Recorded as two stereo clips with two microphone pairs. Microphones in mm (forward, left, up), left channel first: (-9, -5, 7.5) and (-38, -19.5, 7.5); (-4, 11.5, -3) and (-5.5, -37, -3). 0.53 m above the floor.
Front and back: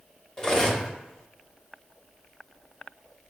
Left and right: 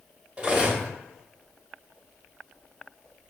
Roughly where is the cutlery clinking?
Ahead right.